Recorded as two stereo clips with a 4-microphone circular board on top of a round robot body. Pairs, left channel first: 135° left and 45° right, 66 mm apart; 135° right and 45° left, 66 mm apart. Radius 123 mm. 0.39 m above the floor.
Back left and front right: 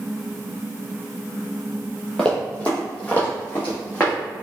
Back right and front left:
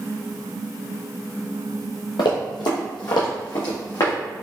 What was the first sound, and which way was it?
Running footsteps, 150° right.